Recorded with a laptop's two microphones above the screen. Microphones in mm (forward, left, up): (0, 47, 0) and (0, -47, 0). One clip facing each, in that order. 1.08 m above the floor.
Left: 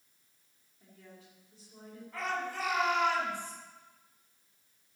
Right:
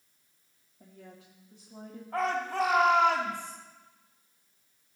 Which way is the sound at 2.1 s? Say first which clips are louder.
Right 7 dB; 75° right (ahead or behind).